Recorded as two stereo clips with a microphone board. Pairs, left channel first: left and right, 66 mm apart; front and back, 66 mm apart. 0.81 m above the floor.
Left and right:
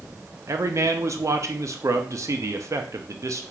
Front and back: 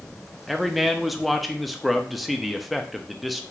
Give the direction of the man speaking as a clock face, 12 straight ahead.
3 o'clock.